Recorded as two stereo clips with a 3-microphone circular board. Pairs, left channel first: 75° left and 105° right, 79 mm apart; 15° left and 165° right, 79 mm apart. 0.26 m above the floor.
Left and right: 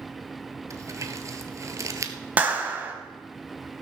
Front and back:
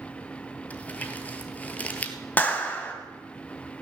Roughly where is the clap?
Ahead right.